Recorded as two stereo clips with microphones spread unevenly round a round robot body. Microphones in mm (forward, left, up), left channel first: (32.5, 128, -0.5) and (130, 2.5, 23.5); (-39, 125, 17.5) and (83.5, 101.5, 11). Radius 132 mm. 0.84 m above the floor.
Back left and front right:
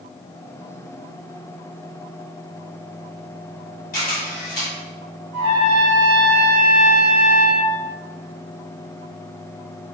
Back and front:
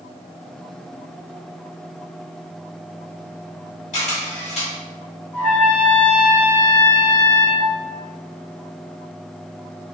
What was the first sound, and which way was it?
A camera shutter, 160° left.